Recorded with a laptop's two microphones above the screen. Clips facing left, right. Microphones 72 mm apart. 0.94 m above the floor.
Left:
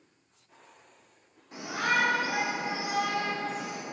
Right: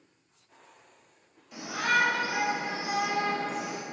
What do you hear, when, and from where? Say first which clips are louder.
1.5 s a shout: right 1 dB; 35° left (ahead or behind), 2.5 m; by 3.8 s 60° right (ahead or behind), 1.0 m